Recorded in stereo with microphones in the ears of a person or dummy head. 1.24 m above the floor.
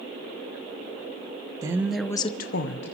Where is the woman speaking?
15° right (ahead or behind), 1.1 m; by 2.9 s 60° left (ahead or behind), 1.0 m.